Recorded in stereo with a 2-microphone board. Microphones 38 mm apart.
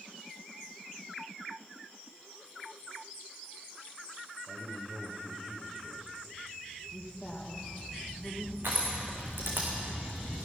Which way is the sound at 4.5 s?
10° right (ahead or behind).